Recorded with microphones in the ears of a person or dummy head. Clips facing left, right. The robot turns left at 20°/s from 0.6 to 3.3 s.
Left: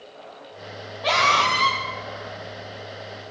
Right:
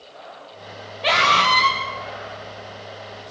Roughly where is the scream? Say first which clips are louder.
Right 2 dB; right.